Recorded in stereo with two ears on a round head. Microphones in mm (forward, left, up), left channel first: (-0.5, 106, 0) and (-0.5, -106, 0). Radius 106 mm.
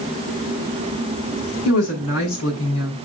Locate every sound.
1.6 s a woman speaking: 70° left (ahead or behind), 6.5 m